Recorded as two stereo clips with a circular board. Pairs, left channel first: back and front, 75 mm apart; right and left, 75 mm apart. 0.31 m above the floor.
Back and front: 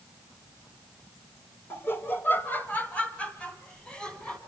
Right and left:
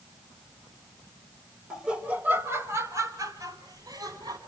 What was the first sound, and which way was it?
Laughter, 165° left.